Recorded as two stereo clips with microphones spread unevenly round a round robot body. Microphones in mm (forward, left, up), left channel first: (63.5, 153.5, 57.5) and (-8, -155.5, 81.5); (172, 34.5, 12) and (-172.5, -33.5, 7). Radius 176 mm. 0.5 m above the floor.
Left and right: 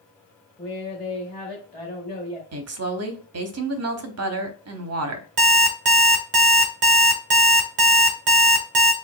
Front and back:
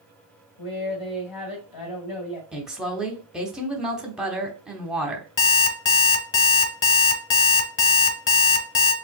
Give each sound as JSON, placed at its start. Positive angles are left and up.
{"t": 0.6, "sound": "a woman speaking", "azimuth_deg": -10, "distance_m": 2.5}
{"t": 2.5, "sound": "a woman speaking", "azimuth_deg": -85, "distance_m": 1.0}
{"t": 5.4, "sound": "an alarm clock", "azimuth_deg": -50, "distance_m": 1.0}